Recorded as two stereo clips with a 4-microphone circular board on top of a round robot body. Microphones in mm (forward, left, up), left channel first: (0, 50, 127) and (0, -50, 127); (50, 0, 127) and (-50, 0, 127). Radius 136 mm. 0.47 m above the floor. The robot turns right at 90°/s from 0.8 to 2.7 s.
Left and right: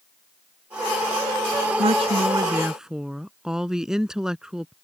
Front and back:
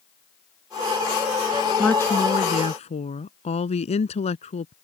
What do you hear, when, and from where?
1.8 s a woman speaking: 90° right; by 4.7 s 5° right